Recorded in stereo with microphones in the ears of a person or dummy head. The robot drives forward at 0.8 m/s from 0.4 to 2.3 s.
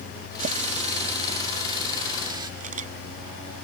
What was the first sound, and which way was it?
A running tap, 50° right (ahead or behind).